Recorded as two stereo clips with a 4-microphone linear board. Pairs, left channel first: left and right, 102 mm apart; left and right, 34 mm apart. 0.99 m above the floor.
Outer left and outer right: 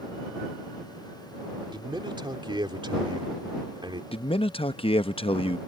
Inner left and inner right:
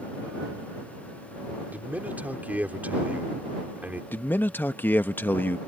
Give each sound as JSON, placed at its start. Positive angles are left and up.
{"t": 1.7, "sound": "a man speaking", "side_deg": -55}
{"t": 4.1, "sound": "a man speaking", "side_deg": 70}